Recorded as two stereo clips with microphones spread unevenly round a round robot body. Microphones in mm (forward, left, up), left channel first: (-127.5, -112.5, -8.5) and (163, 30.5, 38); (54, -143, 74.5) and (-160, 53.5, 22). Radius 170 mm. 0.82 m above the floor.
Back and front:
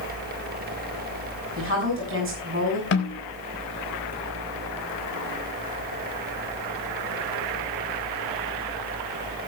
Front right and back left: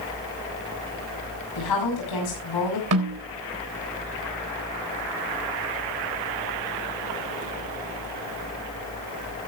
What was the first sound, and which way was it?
A woman speaking, 25° right.